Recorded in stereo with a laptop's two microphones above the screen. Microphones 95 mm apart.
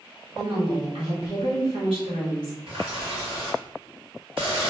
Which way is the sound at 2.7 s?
70° right (ahead or behind).